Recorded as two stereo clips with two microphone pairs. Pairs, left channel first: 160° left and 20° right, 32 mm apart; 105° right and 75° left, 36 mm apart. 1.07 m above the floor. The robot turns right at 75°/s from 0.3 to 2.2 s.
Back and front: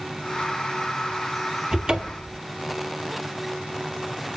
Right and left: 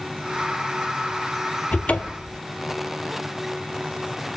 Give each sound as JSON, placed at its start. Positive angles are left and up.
{"t": 1.7, "sound": "a cupboard door", "azimuth_deg": -90, "distance_m": 0.7}